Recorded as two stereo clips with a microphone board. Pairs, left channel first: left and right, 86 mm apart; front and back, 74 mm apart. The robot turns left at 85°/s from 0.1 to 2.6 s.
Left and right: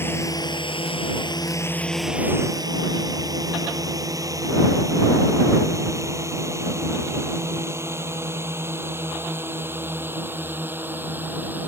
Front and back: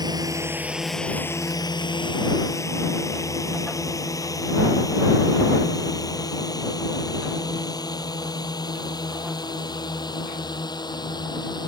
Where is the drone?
155° left; by 11.7 s 20° right.